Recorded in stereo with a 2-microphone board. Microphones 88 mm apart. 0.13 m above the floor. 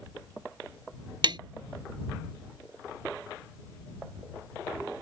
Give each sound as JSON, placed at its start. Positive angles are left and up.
{"t": 1.2, "sound": "tapping", "side_deg": -60}